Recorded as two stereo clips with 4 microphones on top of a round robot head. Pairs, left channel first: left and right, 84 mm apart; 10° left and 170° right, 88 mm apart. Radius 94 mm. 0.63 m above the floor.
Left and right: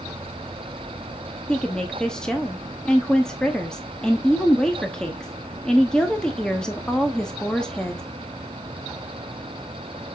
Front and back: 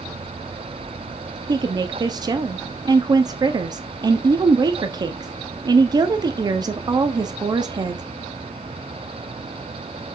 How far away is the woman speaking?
About 1.1 m.